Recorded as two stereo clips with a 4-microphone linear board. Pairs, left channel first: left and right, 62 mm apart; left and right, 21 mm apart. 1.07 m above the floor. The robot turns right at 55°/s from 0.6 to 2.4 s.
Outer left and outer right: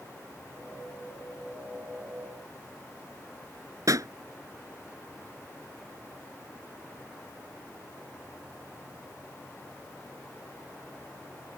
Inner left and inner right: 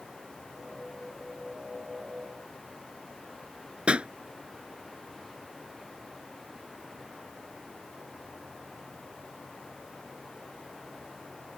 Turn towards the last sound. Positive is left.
turn(degrees=-65)  # may be behind; listen again after turning